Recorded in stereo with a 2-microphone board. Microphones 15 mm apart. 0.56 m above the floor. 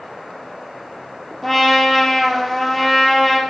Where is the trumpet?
20° left (ahead or behind), 3 m.